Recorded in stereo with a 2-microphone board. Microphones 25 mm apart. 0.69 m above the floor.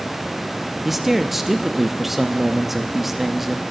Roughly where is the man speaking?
Centre.